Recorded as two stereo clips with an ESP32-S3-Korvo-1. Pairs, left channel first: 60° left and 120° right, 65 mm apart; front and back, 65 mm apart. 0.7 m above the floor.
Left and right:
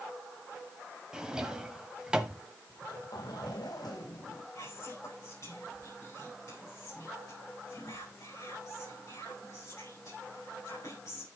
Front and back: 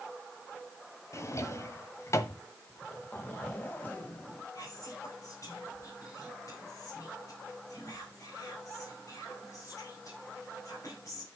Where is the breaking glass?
No breaking glass in this recording.